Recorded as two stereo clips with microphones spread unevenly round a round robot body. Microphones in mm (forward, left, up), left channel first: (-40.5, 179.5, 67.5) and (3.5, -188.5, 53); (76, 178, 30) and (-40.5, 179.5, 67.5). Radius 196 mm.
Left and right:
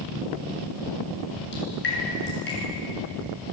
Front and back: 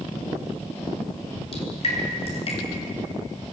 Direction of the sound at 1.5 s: 35° left.